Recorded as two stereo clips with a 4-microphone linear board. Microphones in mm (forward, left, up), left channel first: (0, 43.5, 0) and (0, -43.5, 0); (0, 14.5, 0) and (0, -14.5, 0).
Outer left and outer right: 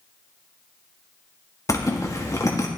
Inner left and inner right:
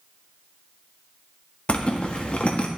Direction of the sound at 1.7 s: 40° left (ahead or behind).